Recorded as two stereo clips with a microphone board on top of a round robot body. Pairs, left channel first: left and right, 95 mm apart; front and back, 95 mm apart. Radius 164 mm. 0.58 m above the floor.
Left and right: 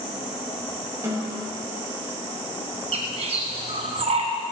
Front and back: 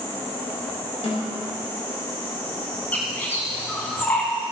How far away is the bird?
About 0.8 m.